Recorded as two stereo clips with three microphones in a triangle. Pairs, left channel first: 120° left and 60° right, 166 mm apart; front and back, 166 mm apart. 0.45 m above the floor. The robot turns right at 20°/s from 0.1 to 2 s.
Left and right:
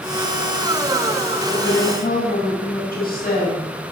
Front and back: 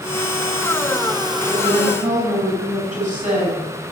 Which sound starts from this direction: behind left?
A woman speaking, at 1.5 s.